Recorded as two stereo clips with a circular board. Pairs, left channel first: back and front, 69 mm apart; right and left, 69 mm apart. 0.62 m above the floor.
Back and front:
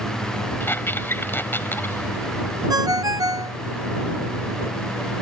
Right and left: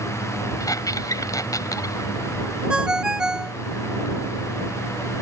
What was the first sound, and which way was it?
A squeak, 125° right.